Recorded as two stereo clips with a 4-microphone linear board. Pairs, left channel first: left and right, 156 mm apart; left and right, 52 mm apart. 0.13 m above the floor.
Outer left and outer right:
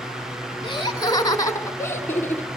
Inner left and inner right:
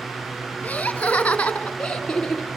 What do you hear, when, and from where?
0.6 s laughter: 30° left (ahead or behind), 1.9 m; by 2.6 s 10° left (ahead or behind), 1.8 m